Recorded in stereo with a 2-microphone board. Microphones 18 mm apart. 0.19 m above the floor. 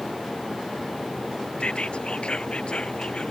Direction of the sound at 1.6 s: 65° left (ahead or behind).